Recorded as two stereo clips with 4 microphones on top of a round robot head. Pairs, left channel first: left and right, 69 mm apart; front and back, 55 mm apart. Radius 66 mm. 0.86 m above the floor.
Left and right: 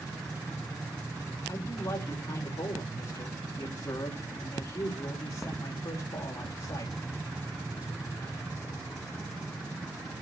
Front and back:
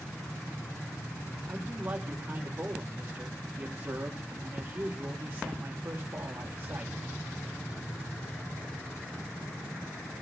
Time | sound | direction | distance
1.5 | a man speaking | 125° left | 3.5 m